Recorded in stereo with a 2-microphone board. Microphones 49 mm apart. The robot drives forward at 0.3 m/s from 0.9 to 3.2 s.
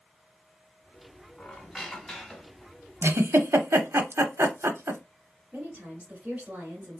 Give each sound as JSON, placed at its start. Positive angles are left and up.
{"t": 1.4, "sound": "a squeak", "side_deg": 0, "distance_m": 1.0}
{"t": 3.0, "sound": "a giggle", "side_deg": -75, "distance_m": 0.5}
{"t": 5.5, "sound": "a woman speaking", "side_deg": -25, "distance_m": 1.6}